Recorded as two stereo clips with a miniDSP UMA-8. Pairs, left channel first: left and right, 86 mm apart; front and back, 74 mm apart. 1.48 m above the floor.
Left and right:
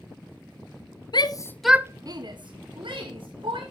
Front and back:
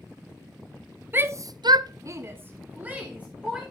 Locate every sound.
1.1 s a shout: 120° left, 0.9 m; by 3.7 s 105° right, 3 m